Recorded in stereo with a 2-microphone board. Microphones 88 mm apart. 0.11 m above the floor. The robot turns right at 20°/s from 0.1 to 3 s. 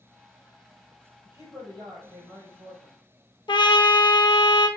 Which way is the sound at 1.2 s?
145° right.